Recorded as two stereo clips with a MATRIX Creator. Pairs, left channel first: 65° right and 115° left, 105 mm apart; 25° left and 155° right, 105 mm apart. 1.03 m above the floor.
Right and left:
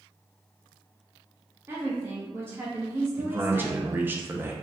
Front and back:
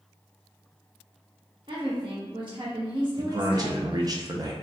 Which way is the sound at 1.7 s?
175° left.